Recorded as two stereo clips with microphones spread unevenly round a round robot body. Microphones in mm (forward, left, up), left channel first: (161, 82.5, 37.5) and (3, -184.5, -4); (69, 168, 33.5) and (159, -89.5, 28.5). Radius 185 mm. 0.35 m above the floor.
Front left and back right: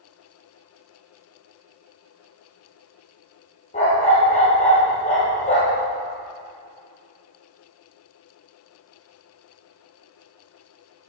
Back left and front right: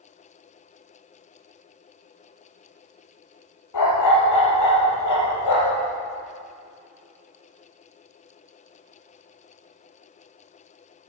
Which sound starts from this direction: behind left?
A dog barking, at 3.7 s.